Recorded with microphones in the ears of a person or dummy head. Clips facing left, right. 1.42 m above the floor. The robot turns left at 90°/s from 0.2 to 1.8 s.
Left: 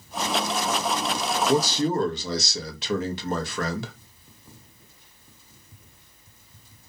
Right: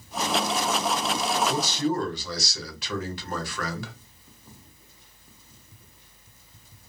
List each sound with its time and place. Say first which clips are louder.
1.5 s a man speaking: left 4 dB; 50° left (ahead or behind), 0.8 m; by 3.9 s 25° left (ahead or behind), 0.8 m